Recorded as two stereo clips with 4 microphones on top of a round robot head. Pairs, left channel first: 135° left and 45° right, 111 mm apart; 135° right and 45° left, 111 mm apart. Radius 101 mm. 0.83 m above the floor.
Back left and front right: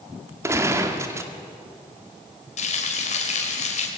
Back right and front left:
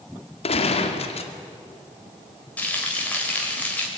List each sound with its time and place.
0.4 s a gunshot: 110° right, 2 m
2.6 s frying: 145° left, 4 m